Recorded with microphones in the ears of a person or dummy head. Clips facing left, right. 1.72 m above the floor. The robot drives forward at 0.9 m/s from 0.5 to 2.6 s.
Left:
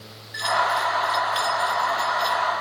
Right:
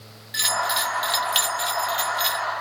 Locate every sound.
0.3 s a bell: 45° right (ahead or behind); by 2.5 s 30° right (ahead or behind)